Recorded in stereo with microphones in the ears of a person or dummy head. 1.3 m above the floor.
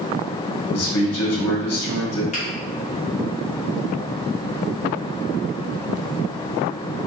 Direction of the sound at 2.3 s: 30° left (ahead or behind).